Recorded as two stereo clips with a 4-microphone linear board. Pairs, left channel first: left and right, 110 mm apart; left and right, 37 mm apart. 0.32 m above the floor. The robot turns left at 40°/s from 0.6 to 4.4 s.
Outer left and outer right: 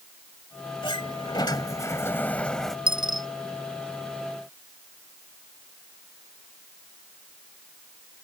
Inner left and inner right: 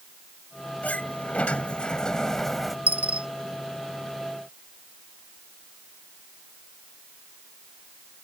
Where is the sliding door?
80° left; by 2.8 s straight ahead.